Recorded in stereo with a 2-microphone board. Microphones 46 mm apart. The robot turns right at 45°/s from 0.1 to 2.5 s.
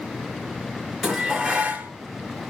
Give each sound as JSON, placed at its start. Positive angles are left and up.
{"t": 1.0, "sound": "dishes clattering", "azimuth_deg": -175, "distance_m": 1.8}